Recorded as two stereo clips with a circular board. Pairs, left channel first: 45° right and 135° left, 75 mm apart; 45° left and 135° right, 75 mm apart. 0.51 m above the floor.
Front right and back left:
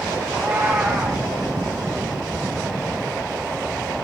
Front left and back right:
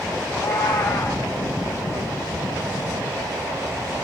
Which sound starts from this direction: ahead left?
A cat meowing, at 0.3 s.